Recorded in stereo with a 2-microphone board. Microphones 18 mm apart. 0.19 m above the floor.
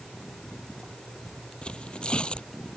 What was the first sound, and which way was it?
Tearing paper, 70° left (ahead or behind).